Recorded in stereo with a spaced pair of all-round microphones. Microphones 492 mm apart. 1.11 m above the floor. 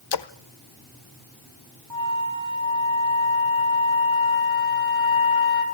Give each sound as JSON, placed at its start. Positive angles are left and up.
{"t": 0.1, "sound": "a splash", "side_deg": 55, "distance_m": 0.6}
{"t": 1.9, "sound": "a flute", "side_deg": -40, "distance_m": 3.5}